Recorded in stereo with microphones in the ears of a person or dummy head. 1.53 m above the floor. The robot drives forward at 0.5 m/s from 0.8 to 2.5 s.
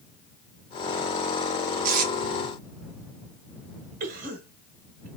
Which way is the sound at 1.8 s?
55° right (ahead or behind).